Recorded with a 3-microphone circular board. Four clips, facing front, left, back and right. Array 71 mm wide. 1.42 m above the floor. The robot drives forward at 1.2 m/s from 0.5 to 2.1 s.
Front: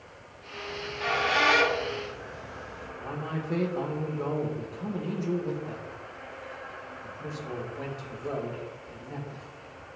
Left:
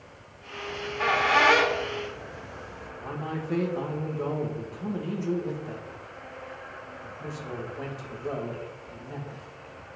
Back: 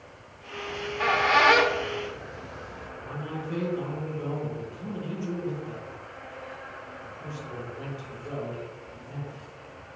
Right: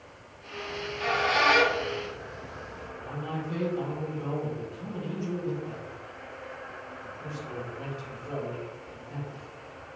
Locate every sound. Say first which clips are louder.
0.7 s a squeak: left 3 dB, back 4 dB; 125° left, 1.4 m; by 2.9 s 155° left, 2.5 m
3.0 s a man speaking: left 2 dB, front 2 dB; 55° left, 2 m